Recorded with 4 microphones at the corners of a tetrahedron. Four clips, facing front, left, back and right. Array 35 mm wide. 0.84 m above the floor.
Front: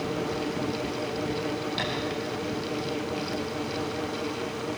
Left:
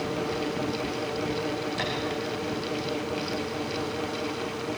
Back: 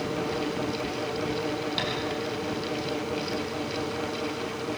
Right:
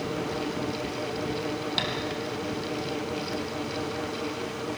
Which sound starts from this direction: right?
Tapping, at 1.8 s.